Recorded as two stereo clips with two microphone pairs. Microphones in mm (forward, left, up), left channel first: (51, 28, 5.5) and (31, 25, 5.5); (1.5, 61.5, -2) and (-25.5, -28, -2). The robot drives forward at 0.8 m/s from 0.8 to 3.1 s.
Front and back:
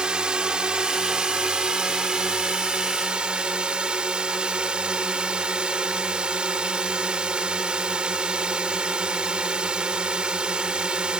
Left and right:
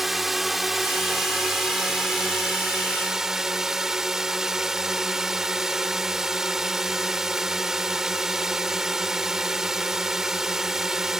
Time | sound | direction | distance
0.0 | a drone | 165° left | ?